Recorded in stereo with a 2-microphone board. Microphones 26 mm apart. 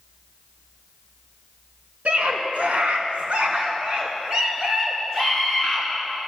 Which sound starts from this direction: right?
A scream, at 2.0 s.